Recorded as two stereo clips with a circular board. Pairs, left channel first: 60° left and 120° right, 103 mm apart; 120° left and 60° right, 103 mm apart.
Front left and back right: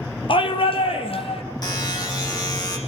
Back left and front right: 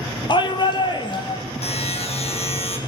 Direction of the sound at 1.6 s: 110° left.